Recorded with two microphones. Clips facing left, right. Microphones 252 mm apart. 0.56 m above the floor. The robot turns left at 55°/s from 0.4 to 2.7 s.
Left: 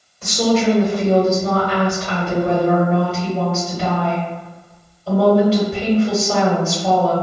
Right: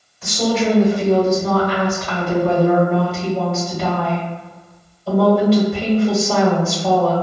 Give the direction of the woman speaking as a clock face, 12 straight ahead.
8 o'clock.